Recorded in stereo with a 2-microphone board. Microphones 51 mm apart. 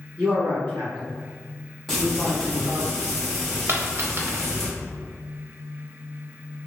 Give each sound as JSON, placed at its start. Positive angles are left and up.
{"t": 0.2, "sound": "a man speaking", "side_deg": -25, "distance_m": 1.6}
{"t": 1.9, "sound": "frying", "side_deg": 0, "distance_m": 1.1}
{"t": 3.7, "sound": "a dropped coin", "side_deg": -50, "distance_m": 0.6}